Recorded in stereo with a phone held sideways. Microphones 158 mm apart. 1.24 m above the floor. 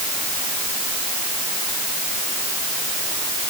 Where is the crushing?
I don't hear crushing.